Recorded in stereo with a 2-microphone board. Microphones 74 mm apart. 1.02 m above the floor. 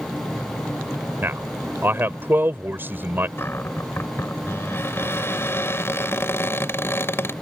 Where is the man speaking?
30° right (ahead or behind).